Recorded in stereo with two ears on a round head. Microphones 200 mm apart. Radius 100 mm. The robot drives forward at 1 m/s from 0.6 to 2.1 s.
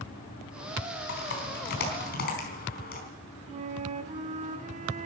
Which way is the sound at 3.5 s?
35° right (ahead or behind).